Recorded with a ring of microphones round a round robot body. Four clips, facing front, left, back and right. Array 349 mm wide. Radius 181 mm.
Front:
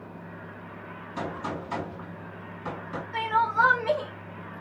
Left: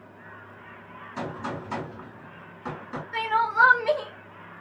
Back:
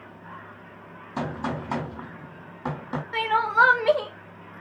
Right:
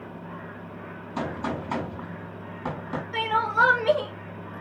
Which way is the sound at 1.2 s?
155° right.